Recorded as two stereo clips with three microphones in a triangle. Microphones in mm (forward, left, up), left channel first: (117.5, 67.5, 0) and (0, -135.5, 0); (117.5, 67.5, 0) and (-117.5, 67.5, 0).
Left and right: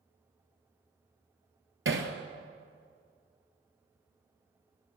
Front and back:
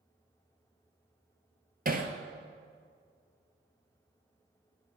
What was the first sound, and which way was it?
Hammering, 135° right.